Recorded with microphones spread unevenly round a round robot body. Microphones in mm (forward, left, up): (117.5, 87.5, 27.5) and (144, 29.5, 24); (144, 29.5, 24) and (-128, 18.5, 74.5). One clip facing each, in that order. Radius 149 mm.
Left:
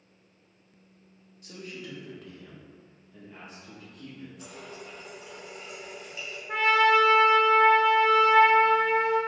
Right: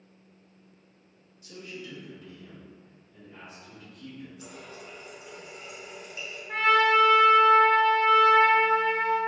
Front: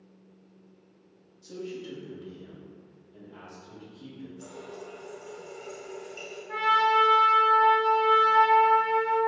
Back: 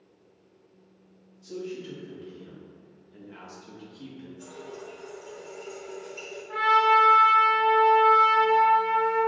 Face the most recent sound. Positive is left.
turn(degrees=30)